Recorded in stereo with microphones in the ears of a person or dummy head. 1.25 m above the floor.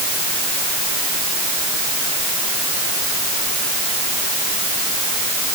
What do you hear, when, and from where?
Only background noise.